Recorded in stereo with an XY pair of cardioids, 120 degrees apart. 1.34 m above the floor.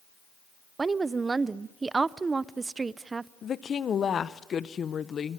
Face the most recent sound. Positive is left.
turn(degrees=40)